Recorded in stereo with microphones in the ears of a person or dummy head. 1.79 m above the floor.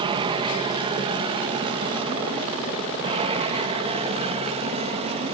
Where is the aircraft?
25° right (ahead or behind); by 5.4 s 30° right (ahead or behind).